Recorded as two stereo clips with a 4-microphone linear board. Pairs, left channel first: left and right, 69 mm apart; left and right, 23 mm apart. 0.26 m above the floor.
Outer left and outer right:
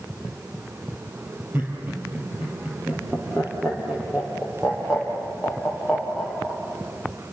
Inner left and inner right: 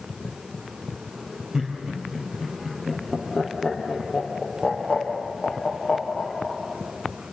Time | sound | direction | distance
1.5 | laughter | 30° right (ahead or behind) | 6 m